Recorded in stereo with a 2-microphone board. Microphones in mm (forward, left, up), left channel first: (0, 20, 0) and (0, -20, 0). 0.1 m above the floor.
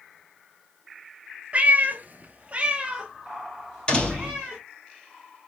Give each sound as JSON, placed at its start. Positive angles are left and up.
{"t": 1.5, "sound": "a cat meowing", "side_deg": -35, "distance_m": 0.6}
{"t": 3.9, "sound": "a door slam", "side_deg": 20, "distance_m": 2.0}